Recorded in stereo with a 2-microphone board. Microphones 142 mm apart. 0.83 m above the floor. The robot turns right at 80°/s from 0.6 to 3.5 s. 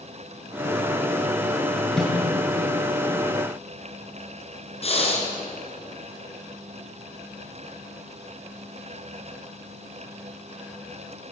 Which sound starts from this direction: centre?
A snare drum, at 2.0 s.